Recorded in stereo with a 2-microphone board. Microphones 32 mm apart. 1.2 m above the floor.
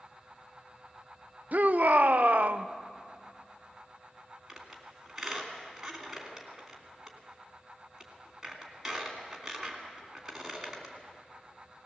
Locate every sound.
1.5 s a shout: 55° right (ahead or behind), 0.6 m
4.5 s a squeak: 5° right (ahead or behind), 3 m